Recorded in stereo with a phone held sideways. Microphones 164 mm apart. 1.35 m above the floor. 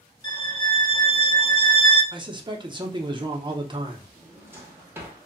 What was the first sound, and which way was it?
A violin, 20° left (ahead or behind).